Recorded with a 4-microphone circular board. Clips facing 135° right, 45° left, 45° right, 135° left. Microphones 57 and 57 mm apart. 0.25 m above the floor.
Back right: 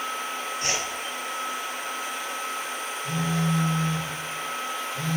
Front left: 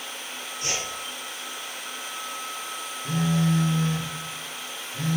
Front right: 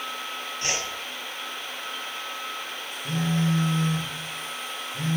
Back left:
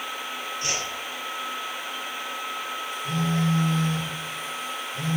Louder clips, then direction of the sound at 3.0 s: Front left 3 dB, even; 5° right.